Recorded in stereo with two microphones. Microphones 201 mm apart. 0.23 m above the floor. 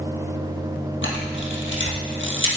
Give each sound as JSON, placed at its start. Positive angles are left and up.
{"t": 1.0, "sound": "a camera shutter", "side_deg": 75, "distance_m": 2.5}